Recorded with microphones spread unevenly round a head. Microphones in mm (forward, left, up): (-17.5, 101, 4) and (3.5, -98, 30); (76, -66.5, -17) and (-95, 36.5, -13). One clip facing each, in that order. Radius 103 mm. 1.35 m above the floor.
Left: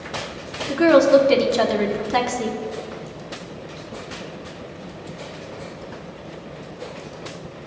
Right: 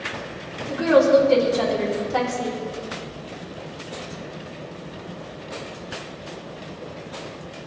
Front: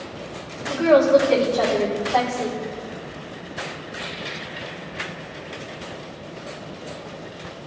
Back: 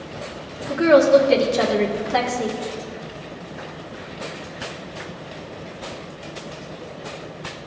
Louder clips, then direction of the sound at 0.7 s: Left 2 dB, back 2 dB; 85° left.